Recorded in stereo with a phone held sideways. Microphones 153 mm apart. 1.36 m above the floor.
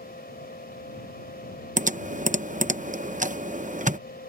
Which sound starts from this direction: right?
Typing on a keyboard, at 1.8 s.